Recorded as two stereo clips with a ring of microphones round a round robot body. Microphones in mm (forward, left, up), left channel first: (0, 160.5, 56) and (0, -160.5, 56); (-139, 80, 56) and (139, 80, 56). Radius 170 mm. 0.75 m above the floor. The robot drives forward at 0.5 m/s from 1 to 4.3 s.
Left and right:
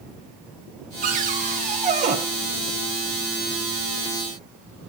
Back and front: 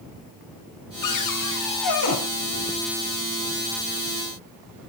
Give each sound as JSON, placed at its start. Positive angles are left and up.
{"t": 1.0, "sound": "a cupboard door", "azimuth_deg": -155, "distance_m": 3.0}